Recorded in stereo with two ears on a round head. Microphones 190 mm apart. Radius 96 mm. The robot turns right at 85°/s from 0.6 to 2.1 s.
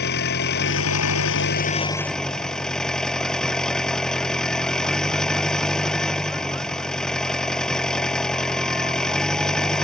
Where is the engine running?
50° left; by 9.8 s 175° left.